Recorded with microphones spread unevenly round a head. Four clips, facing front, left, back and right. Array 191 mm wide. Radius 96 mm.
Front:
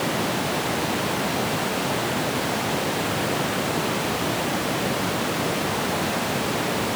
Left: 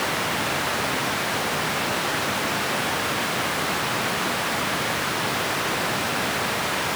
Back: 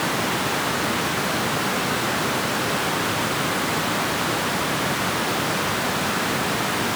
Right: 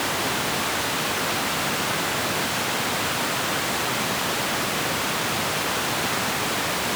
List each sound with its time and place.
Only background noise.